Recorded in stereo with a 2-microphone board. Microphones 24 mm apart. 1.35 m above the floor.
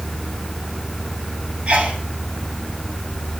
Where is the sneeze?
70° right (ahead or behind), 7.5 m.